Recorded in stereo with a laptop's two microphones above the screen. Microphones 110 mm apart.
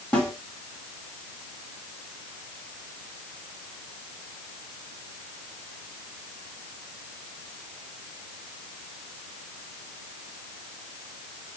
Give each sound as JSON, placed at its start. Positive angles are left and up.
{"t": 0.1, "sound": "a snare drum", "side_deg": 15, "distance_m": 1.7}